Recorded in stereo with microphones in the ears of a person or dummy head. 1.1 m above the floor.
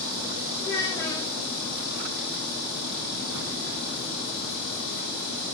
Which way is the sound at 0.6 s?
30° left (ahead or behind).